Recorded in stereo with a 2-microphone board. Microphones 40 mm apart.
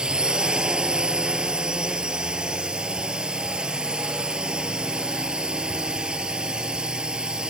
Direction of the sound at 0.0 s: 20° right (ahead or behind).